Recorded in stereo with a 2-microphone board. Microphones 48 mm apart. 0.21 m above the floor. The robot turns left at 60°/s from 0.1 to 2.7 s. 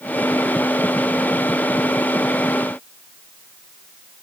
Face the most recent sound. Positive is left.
No sound to turn to.